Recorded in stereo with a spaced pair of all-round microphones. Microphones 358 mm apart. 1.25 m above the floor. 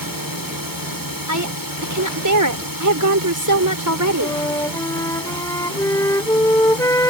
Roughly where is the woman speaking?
Right.